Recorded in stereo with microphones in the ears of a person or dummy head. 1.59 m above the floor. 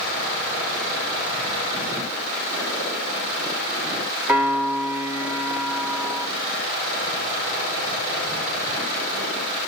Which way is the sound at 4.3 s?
10° right (ahead or behind).